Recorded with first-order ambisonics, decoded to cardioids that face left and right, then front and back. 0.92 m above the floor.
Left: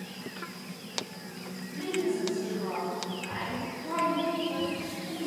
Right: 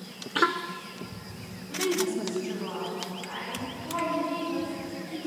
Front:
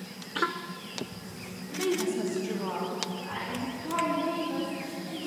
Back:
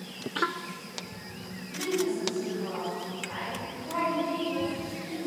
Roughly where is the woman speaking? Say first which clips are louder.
Right 3 dB, even; right.